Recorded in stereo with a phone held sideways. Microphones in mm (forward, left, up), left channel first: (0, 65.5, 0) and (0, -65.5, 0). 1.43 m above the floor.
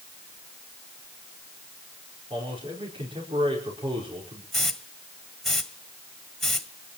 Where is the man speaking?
40° right (ahead or behind), 5 m.